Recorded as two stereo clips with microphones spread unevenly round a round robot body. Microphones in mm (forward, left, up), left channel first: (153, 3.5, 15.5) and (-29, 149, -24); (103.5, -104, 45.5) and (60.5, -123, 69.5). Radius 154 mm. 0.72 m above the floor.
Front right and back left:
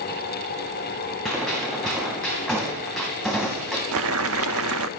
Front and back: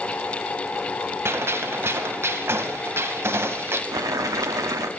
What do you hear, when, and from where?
1.2 s a gunshot: 125° right, 2.5 m
3.9 s boiling: 175° left, 0.7 m